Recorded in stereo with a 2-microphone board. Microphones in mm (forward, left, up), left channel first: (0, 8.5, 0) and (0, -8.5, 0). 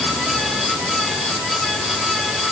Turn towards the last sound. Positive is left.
No sound to turn to.